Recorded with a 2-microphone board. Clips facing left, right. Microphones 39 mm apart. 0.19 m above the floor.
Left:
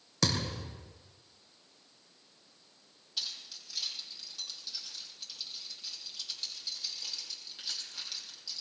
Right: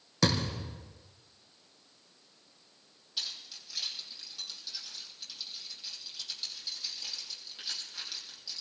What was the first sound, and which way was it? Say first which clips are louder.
A thud: right 3 dB; 5° right (ahead or behind).